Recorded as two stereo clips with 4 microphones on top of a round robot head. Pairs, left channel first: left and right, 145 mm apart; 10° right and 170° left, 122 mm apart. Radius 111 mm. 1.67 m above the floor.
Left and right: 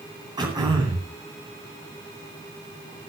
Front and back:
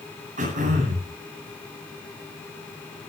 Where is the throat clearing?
150° right, 9.5 m.